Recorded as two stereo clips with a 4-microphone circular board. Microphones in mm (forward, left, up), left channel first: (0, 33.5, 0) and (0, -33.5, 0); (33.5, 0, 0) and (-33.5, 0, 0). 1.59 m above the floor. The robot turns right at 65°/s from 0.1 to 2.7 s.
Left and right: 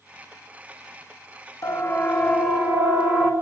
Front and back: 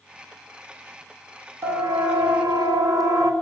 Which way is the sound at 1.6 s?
130° left.